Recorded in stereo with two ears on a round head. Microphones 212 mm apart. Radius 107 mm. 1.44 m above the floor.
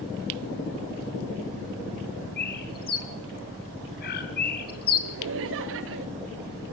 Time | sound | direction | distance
2.4 | a bird | 40° left (ahead or behind) | 2.5 m
5.0 | laughter | 60° right (ahead or behind) | 1.4 m